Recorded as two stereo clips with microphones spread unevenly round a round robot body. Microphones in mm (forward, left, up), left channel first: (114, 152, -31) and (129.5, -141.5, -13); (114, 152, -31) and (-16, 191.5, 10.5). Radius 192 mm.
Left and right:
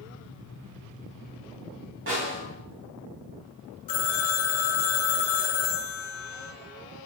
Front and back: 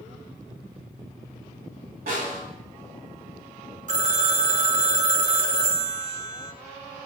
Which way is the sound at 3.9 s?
135° left.